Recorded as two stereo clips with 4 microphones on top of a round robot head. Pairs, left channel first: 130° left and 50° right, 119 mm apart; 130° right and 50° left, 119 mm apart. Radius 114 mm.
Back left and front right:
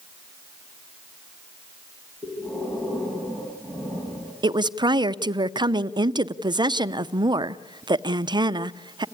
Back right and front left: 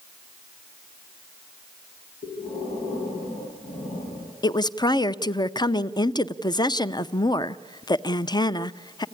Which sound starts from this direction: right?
A woman speaking, at 4.4 s.